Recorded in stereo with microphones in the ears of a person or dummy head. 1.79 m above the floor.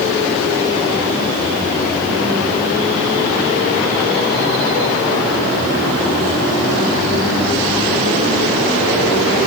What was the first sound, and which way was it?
Only background noise.